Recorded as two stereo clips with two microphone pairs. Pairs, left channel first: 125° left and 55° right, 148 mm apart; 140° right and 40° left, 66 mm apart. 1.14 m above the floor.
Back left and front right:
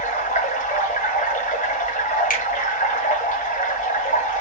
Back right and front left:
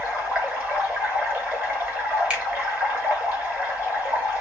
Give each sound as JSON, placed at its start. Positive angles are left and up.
{"t": 0.0, "sound": "running water", "azimuth_deg": 100, "distance_m": 1.9}
{"t": 2.3, "sound": "a finger snap", "azimuth_deg": 110, "distance_m": 1.6}